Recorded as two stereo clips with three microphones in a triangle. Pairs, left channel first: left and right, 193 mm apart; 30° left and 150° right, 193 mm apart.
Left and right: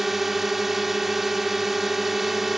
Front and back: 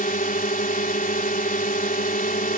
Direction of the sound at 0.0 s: Straight ahead.